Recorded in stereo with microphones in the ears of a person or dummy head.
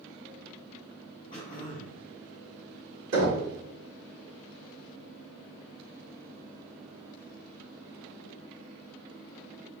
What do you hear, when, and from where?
1.3 s throat clearing: 35° left (ahead or behind), 0.9 m
3.1 s knocking: 65° right (ahead or behind), 1.2 m